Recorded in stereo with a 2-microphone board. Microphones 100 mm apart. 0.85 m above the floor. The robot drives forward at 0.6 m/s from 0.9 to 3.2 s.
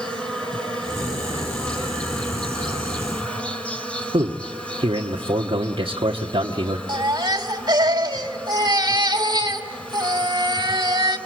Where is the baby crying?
45° right (ahead or behind), 2 m.